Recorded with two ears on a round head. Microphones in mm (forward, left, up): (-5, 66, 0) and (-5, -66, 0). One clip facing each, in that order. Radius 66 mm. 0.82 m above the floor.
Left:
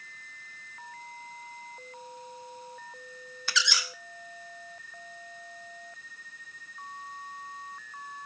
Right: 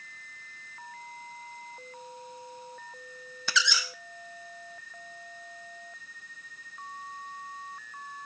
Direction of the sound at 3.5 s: 75° right (ahead or behind).